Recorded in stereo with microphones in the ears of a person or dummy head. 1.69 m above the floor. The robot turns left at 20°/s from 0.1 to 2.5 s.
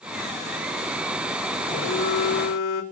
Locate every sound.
1.6 s a phone buzzing: 30° left (ahead or behind), 2.5 m; by 2.8 s 45° left (ahead or behind), 2.5 m